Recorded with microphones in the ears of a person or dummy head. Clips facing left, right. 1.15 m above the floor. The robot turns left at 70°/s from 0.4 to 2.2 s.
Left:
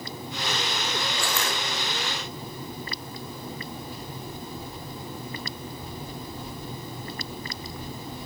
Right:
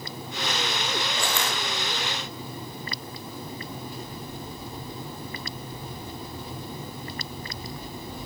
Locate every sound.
1.2 s crushing: 20° right (ahead or behind), 1.1 m; by 1.6 s 30° right (ahead or behind), 1.1 m